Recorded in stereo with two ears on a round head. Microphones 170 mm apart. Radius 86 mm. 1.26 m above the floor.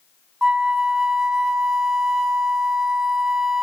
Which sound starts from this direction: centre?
A flute, at 0.4 s.